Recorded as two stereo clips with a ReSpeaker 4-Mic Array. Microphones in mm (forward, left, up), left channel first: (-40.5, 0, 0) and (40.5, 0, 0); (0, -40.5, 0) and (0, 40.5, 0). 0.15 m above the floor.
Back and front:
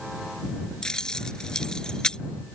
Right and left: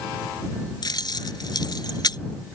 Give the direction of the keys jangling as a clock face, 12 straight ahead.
3 o'clock.